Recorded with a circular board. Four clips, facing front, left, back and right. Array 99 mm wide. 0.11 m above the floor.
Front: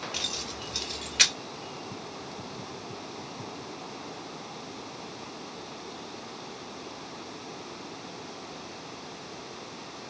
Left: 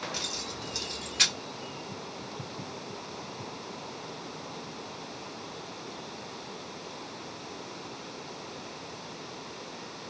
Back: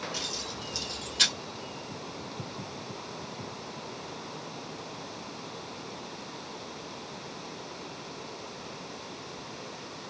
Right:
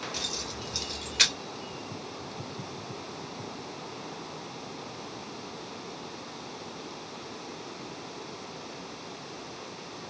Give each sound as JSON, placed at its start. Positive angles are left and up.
{"t": 0.1, "sound": "keys jangling", "azimuth_deg": 0, "distance_m": 1.5}